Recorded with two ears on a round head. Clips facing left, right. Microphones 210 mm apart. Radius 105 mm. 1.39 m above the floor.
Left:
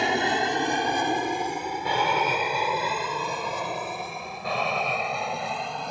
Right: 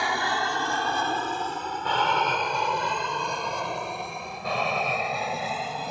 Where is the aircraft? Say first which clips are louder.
Left 4 dB; 20° left (ahead or behind); by 5.9 s 5° right (ahead or behind).